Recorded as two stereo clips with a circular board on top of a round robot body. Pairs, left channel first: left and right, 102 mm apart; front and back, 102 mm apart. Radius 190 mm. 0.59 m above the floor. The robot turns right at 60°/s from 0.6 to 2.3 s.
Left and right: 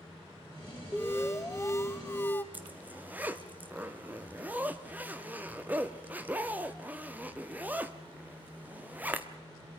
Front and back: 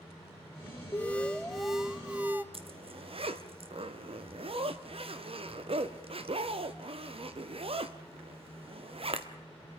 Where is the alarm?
45° left, 1.7 m; by 2.4 s 130° left, 1.7 m.